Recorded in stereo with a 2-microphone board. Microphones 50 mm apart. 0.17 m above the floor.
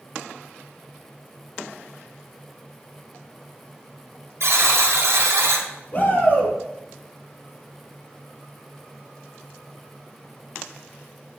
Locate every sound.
4.4 s a buzzer: 65° right (ahead or behind), 2.0 m
5.9 s a shout: 35° left (ahead or behind), 3 m